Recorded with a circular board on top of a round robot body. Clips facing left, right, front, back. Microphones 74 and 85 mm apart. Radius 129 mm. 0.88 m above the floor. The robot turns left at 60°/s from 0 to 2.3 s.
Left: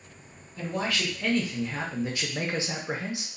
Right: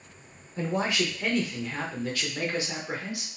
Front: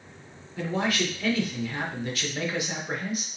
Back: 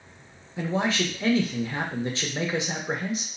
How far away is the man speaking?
About 1.1 m.